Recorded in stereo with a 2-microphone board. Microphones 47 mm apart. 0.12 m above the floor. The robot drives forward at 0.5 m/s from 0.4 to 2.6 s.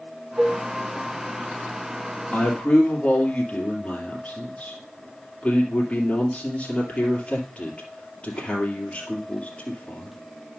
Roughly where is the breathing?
I don't hear breathing.